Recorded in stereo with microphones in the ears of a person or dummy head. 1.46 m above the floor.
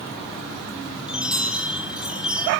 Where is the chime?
5° right (ahead or behind), 1.5 m.